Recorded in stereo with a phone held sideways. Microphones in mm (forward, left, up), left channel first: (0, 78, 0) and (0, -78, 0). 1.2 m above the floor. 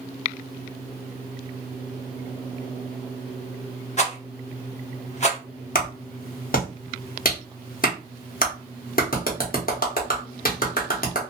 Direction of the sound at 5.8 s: 60° left (ahead or behind).